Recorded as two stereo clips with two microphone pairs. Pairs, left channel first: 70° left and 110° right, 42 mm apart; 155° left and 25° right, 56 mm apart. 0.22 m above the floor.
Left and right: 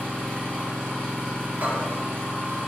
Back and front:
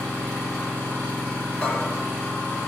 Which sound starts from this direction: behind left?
An engine running, at 0.0 s.